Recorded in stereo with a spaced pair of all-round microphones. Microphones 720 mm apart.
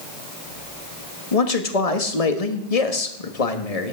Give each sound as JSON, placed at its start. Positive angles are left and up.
{"t": 1.3, "sound": "a man speaking", "side_deg": 50, "distance_m": 1.4}